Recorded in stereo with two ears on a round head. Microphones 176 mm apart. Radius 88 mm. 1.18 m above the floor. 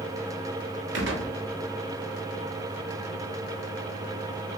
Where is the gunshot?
60° right (ahead or behind), 1.4 m.